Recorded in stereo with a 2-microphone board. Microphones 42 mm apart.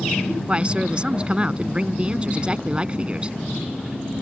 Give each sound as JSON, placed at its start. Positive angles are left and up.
{"t": 0.5, "sound": "a man speaking", "side_deg": -25}